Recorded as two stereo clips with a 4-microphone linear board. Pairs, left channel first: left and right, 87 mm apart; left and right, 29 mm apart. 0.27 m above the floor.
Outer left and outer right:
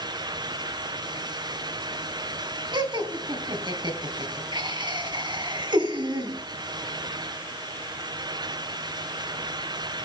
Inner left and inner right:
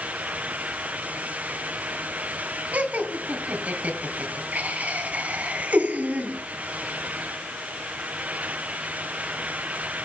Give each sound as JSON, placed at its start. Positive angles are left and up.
{"t": 2.7, "sound": "laughter", "side_deg": -55, "distance_m": 2.5}